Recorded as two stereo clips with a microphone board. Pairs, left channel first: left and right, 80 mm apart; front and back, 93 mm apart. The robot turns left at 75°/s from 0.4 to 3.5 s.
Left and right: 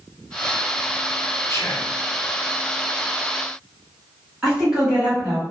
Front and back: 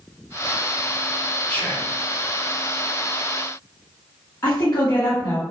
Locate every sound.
1.5 s whispering: 70° left, 0.8 m; by 1.9 s 35° left, 0.8 m
4.4 s a woman speaking: 15° right, 1.5 m